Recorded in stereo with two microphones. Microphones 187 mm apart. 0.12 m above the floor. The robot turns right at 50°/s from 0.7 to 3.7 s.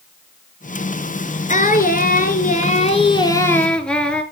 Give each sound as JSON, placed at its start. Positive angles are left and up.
{"t": 1.5, "sound": "singing", "azimuth_deg": 65, "distance_m": 1.5}